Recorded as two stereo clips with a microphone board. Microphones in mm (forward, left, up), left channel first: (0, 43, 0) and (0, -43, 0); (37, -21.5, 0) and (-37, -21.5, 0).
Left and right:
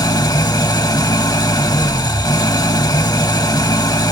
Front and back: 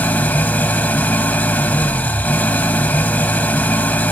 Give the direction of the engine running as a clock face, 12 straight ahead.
10 o'clock.